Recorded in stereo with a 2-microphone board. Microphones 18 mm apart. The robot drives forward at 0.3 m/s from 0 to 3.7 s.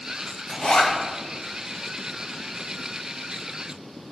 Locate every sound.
0.5 s a zipper: 55° left (ahead or behind), 2 m